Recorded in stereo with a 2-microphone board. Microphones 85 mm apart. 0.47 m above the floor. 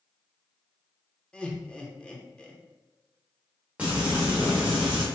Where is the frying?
20° right (ahead or behind), 1.5 m.